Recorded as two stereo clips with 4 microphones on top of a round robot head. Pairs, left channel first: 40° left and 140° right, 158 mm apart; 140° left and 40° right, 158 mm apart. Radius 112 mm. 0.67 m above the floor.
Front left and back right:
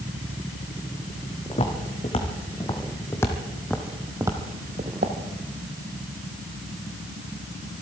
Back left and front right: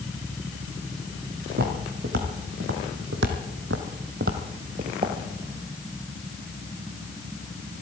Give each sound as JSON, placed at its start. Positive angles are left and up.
{"t": 1.5, "sound": "footsteps", "azimuth_deg": -10, "distance_m": 2.0}